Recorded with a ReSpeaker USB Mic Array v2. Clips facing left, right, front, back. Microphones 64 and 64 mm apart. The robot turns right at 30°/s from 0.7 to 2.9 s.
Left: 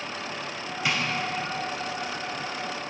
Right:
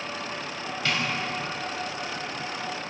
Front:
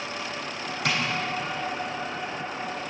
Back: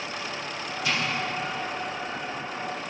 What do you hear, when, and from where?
0.8 s tapping: 15° left, 3 m; by 1.0 s 20° left, 3 m